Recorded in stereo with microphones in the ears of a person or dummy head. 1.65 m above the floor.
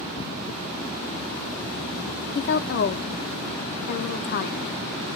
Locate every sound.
2.4 s a woman speaking: 55° left (ahead or behind), 0.6 m